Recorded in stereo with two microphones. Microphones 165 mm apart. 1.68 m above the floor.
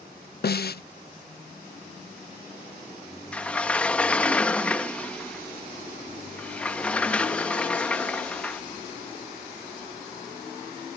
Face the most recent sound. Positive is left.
turn(degrees=5)  # may be behind; listen again after turning